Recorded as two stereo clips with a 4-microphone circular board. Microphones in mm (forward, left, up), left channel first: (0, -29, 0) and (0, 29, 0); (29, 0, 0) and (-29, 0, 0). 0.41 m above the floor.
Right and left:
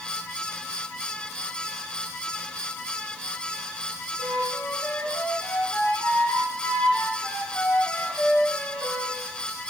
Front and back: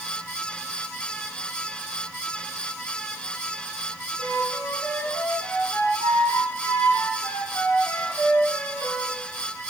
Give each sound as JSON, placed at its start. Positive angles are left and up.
{"t": 4.2, "sound": "a flute", "azimuth_deg": -35, "distance_m": 3.5}